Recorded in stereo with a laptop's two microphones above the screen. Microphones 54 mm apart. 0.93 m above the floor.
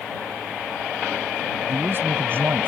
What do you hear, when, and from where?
1.7 s a man speaking: 40° right (ahead or behind); by 2.7 s 45° right (ahead or behind)